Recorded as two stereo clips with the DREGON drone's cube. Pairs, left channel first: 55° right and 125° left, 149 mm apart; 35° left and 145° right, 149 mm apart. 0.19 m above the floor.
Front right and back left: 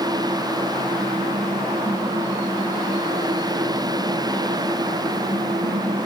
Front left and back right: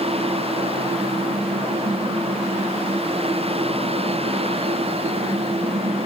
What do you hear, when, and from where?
Only background noise.